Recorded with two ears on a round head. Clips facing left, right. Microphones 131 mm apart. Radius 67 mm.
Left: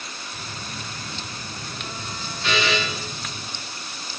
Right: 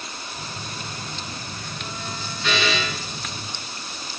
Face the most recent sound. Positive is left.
turn(degrees=0)  # may be behind; listen again after turning